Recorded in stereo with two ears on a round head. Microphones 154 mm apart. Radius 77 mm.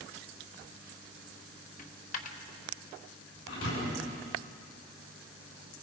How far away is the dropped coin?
About 1.4 m.